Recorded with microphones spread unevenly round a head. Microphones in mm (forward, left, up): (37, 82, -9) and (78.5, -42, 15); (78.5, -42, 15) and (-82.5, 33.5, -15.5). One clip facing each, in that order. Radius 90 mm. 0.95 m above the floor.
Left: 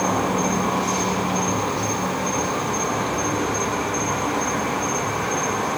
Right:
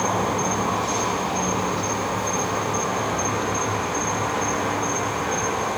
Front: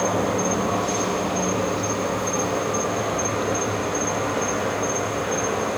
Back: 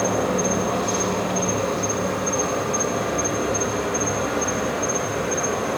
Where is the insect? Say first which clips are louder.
Left 2 dB, back 1 dB; 75° left, 3 m.